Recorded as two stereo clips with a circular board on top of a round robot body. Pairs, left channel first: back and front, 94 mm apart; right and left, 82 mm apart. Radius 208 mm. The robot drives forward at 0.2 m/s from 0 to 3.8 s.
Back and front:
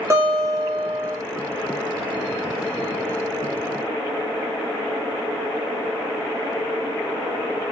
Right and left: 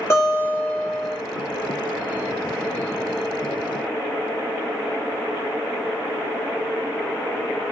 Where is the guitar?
50° right, 1.8 m; by 1.2 s 60° right, 1.7 m.